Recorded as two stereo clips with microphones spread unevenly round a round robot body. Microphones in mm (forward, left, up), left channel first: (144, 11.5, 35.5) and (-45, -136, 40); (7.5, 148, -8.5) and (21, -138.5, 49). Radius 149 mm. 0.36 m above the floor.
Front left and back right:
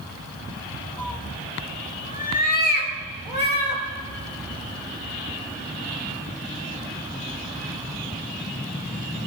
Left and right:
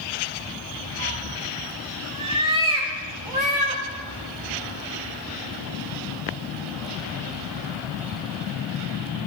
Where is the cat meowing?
45° right, 1.6 m; by 3.8 s 5° right, 5 m.